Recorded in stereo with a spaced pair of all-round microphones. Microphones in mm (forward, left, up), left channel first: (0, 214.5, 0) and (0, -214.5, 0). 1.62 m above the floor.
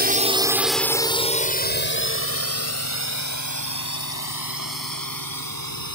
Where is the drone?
20° right (ahead or behind); by 6.0 s 55° left (ahead or behind).